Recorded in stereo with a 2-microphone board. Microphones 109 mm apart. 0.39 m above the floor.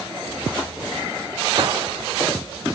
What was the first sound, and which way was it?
A gunshot, 50° right (ahead or behind).